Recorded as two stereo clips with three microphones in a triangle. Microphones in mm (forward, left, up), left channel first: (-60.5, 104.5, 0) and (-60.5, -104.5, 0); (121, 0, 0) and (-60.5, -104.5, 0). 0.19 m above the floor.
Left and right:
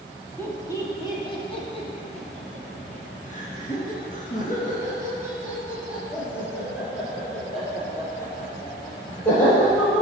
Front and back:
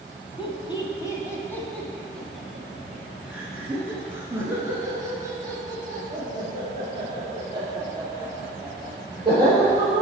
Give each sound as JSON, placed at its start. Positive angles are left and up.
{"t": 0.4, "sound": "laughter", "azimuth_deg": 25, "distance_m": 1.2}